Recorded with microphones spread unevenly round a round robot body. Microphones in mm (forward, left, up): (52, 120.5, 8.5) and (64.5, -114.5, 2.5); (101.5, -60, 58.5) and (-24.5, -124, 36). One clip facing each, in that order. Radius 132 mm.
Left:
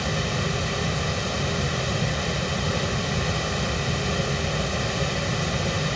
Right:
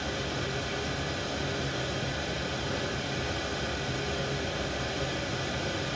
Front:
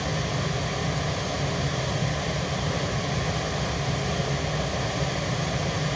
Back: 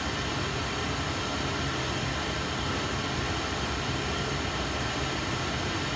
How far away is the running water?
About 0.7 m.